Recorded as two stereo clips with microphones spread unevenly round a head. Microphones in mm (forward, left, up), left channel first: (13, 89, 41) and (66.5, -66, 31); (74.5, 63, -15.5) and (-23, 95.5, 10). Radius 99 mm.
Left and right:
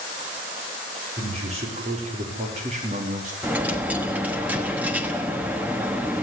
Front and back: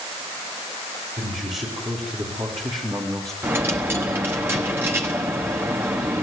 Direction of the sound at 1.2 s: 130° right.